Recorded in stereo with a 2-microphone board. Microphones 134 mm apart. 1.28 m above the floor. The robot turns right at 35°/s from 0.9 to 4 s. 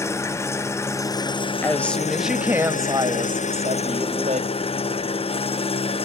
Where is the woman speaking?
165° left, 1.5 m; by 4.5 s 115° right, 1.5 m.